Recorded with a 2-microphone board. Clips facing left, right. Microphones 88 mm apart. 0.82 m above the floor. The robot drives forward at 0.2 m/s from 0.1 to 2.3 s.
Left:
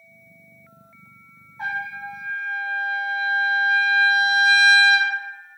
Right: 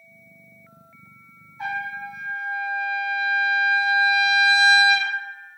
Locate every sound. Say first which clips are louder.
1.6 s a trumpet: even; 40° left (ahead or behind), 1.3 m